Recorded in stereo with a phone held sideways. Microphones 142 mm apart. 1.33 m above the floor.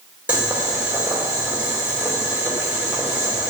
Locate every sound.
0.3 s boiling: 10° right (ahead or behind), 2.5 m